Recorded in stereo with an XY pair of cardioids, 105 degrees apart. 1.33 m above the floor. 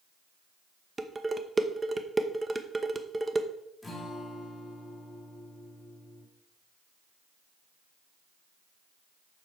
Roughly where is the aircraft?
No aircraft in this recording.